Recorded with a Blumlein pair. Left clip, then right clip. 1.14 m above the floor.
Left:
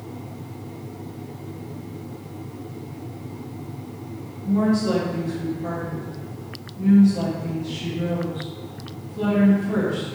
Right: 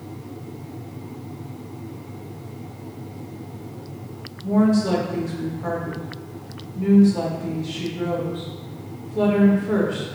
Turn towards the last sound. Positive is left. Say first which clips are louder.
# right 2 dB
turn(degrees=-40)